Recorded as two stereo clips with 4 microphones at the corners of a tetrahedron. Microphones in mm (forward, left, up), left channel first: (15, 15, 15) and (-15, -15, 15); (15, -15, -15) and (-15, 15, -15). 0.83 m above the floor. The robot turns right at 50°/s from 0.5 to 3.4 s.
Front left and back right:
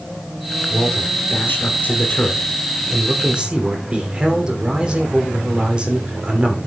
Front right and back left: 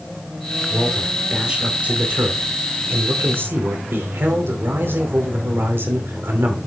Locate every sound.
0.7 s a man speaking: 25° left, 2.5 m; by 6.6 s 160° left, 2.5 m